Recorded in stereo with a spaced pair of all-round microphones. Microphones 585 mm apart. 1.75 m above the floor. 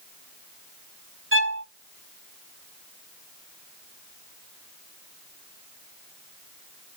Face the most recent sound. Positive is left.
turn(degrees=-20)  # may be behind; listen again after turning